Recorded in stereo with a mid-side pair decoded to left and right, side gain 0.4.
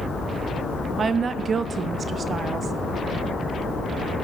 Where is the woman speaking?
50° right, 0.5 m.